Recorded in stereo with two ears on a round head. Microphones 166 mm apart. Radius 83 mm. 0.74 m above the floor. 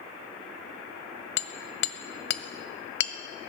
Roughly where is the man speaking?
I don't hear a man speaking.